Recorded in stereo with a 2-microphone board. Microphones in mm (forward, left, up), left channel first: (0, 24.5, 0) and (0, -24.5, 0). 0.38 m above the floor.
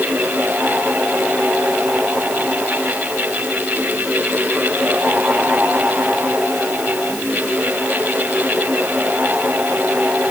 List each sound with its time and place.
Only background noise.